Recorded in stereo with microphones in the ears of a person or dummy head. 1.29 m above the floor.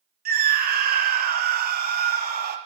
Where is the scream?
40° right (ahead or behind), 0.5 m.